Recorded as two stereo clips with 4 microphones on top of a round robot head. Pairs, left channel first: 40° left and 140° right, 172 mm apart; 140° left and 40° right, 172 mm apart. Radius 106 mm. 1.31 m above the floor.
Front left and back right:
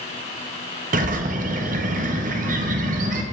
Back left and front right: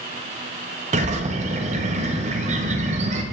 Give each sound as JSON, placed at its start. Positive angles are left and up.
{"t": 0.9, "sound": "a bird", "azimuth_deg": -95, "distance_m": 0.8}